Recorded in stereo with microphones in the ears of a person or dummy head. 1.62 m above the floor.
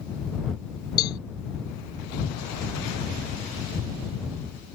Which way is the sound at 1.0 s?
25° left (ahead or behind).